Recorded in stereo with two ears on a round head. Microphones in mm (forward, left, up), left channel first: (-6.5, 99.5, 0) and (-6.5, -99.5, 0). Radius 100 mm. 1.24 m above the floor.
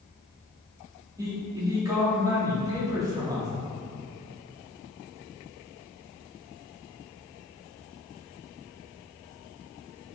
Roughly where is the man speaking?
Centre.